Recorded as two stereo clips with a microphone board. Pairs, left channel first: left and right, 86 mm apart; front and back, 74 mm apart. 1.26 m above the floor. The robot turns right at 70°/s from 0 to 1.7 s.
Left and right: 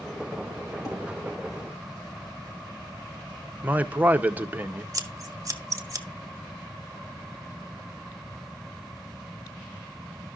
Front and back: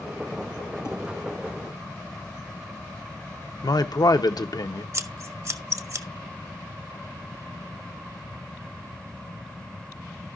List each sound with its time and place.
0.8 s dishes clattering: 50° left, 4 m; by 1.0 s 60° left, 4 m
3.6 s a man speaking: 20° right, 0.7 m
4.9 s scissors: 135° right, 0.8 m